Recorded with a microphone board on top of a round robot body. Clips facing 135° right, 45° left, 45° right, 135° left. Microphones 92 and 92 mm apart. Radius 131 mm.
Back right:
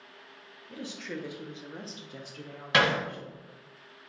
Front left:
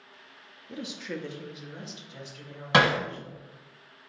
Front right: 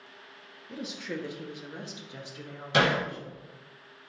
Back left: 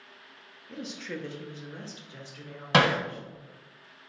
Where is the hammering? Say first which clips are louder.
Front left 3 dB, back left 2 dB; 110° left, 1.3 m.